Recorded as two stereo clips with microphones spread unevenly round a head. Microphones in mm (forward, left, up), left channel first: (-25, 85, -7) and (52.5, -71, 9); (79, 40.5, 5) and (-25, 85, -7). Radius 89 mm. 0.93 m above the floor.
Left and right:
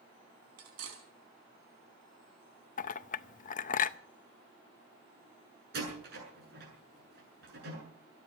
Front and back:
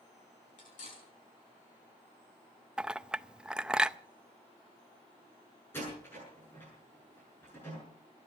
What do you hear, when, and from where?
0.6 s cutlery clinking: 75° right, 5 m
2.8 s a clink: 75° left, 0.6 m
5.7 s a door slam: 100° right, 7 m